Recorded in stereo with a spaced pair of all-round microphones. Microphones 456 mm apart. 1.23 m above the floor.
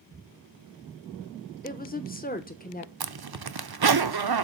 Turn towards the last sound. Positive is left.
turn(degrees=-55)  # may be behind; listen again after turning